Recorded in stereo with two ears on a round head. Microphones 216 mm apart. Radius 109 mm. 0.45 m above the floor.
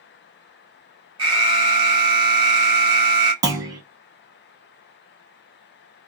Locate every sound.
1.2 s an alarm: 20° right (ahead or behind), 0.9 m
3.4 s a clunk: 15° right (ahead or behind), 0.7 m